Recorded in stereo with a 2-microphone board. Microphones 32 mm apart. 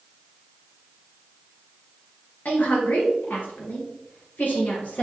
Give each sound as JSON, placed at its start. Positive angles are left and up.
{"t": 2.5, "sound": "a woman speaking", "side_deg": 65, "distance_m": 3.0}